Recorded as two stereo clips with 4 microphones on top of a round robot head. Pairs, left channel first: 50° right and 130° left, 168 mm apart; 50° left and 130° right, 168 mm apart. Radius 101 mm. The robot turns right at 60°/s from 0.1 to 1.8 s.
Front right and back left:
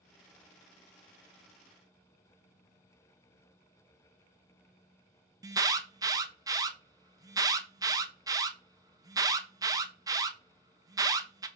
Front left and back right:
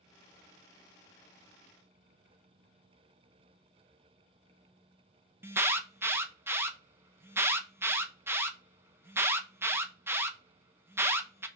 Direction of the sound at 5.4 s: 170° left.